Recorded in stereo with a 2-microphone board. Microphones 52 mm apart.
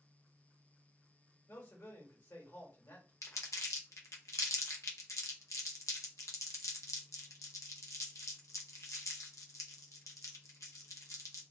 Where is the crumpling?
70° left (ahead or behind), 0.6 m.